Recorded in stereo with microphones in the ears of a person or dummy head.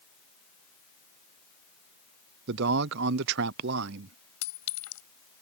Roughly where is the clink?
Left.